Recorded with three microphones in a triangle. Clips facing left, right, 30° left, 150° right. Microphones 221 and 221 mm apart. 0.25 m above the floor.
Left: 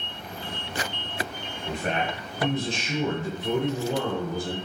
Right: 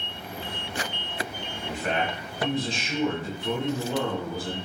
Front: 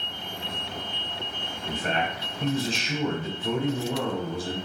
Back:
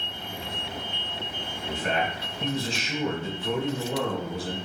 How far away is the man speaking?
About 1.2 m.